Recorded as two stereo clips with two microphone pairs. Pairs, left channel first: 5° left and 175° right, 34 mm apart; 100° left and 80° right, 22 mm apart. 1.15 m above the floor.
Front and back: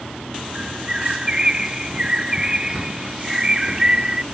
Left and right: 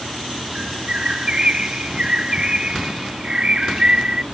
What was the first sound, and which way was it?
A bird, 120° right.